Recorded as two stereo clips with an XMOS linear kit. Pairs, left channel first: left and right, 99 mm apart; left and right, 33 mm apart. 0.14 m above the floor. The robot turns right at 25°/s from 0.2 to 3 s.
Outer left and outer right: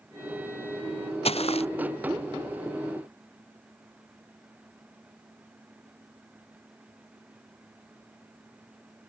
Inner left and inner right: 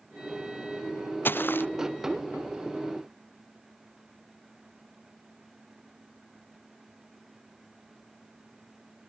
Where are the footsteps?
85° left.